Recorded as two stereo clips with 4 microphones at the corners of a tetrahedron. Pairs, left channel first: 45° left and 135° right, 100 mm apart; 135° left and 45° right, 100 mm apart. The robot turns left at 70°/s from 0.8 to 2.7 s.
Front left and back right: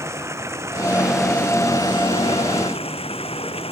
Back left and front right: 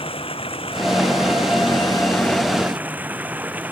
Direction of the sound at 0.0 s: 165° left.